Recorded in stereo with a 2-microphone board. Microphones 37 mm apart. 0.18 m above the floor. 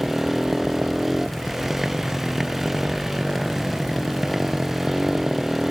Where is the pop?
No pop in this recording.